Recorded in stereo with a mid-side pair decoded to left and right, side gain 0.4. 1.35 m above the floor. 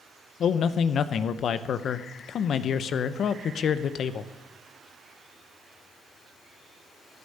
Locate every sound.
0.4 s a man speaking: 65° left, 0.8 m